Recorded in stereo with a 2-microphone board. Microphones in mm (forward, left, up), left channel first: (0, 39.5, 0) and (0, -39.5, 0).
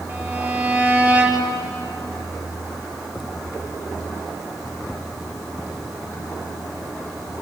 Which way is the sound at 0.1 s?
20° right (ahead or behind).